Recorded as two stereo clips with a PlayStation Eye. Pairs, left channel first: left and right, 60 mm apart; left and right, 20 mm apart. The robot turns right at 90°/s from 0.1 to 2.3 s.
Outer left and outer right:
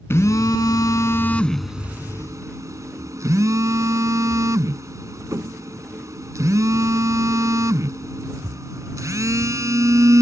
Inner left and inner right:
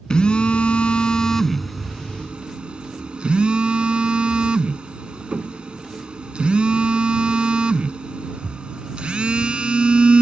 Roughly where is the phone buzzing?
Ahead left.